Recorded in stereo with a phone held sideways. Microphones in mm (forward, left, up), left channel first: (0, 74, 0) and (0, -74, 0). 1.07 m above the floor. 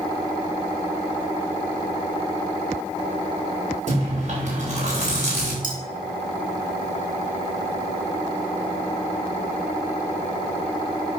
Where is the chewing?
55° right (ahead or behind), 4 m.